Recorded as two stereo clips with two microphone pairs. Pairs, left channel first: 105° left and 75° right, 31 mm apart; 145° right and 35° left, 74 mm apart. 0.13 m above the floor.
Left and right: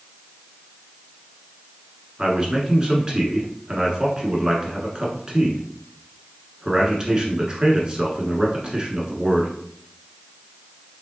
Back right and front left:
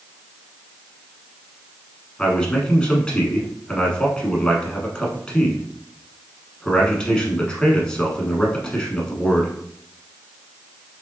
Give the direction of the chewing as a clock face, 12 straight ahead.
No chewing in this recording.